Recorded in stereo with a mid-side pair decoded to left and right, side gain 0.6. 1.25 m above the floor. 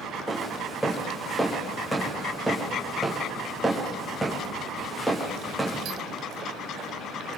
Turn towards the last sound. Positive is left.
turn(degrees=5)